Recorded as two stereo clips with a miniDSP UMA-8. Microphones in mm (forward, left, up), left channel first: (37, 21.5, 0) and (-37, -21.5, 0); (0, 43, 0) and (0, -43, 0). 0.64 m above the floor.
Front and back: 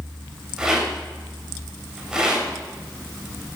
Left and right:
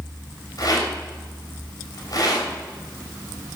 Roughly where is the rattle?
Behind left.